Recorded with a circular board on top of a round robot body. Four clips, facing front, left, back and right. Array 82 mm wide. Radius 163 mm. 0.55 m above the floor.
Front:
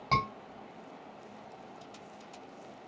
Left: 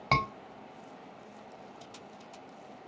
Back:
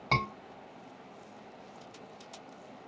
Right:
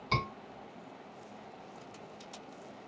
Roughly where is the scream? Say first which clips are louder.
Left 5 dB, front 2 dB; left.